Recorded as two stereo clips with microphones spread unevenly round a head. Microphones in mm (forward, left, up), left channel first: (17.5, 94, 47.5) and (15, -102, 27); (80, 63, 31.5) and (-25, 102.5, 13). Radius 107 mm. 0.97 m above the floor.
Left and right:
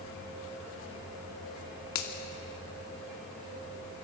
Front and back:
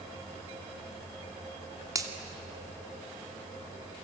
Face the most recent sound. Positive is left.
turn(degrees=100)